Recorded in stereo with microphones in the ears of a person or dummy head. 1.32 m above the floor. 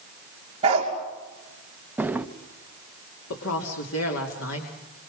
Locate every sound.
0.6 s a dog barking: 30° right (ahead or behind), 5 m
2.0 s a drawer: centre (ahead or behind), 0.9 m
3.3 s a woman speaking: 85° left, 3 m